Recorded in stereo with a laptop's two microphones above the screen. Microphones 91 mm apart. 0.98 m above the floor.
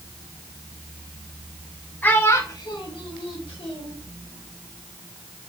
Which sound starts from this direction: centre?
A child speaking, at 2.0 s.